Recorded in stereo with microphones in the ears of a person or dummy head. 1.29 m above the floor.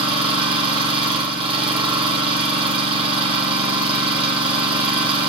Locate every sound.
0.0 s an engine running: 30° right (ahead or behind), 2 m